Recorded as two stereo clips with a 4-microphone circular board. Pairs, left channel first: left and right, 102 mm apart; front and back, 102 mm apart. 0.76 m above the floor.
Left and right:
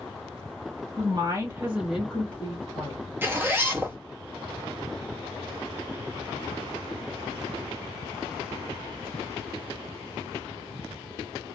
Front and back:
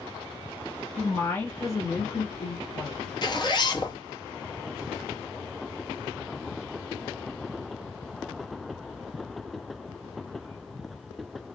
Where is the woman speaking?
75° right, 1.3 m; by 3.0 s 40° left, 1.7 m.